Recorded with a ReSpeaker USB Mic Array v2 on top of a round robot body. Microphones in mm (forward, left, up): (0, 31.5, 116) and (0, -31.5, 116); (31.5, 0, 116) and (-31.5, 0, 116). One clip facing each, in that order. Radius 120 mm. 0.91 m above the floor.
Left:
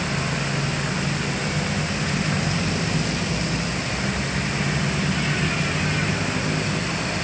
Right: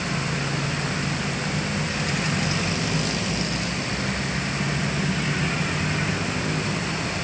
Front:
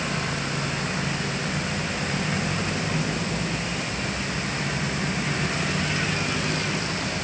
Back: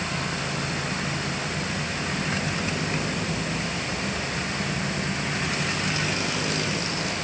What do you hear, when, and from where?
Only background noise.